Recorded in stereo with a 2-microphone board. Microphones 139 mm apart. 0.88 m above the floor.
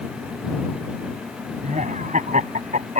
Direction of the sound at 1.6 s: 65° right (ahead or behind).